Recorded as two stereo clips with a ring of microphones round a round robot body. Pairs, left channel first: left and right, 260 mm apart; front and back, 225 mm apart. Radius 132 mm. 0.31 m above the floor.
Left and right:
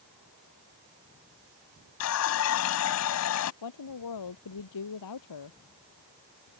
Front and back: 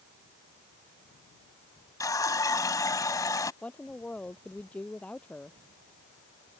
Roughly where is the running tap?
Left.